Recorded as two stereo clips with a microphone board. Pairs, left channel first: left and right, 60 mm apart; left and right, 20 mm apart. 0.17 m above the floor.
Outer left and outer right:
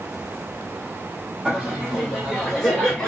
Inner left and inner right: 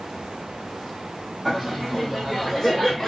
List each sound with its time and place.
1.4 s laughter: 10° right (ahead or behind), 1.6 m; by 3.1 s 5° left (ahead or behind), 1.4 m